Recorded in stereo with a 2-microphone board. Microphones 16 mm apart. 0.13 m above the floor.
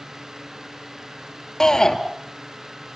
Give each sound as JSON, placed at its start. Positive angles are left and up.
{"t": 1.6, "sound": "a shout", "side_deg": 35, "distance_m": 2.0}